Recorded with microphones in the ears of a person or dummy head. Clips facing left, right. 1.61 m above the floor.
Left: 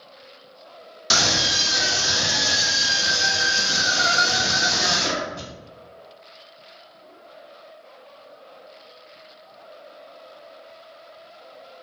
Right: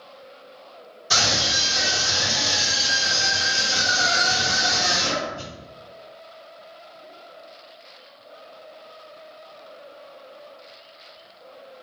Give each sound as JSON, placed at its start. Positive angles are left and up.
{"t": 1.1, "sound": "a scream", "side_deg": 85, "distance_m": 0.8}